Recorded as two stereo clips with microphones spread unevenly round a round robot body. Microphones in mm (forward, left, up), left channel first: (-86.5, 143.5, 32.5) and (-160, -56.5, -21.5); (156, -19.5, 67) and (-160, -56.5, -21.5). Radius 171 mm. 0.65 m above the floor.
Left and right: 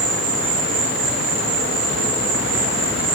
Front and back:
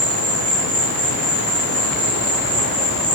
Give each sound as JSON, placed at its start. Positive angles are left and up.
{"t": 0.0, "sound": "an insect", "azimuth_deg": -115, "distance_m": 5.5}